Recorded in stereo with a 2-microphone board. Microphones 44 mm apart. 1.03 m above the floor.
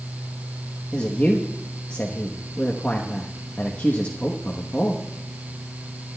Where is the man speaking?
40° left (ahead or behind), 1.0 m.